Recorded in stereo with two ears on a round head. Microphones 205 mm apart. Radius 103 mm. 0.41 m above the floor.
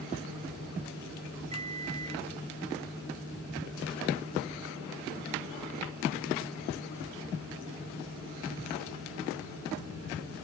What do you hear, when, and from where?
1.5 s a microwave: 30° right (ahead or behind)